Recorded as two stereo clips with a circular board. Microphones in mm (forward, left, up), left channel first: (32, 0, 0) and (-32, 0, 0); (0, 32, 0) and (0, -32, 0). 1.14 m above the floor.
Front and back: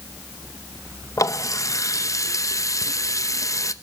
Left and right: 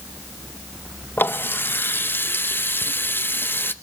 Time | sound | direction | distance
1.2 | a running tap | 35° left | 0.7 m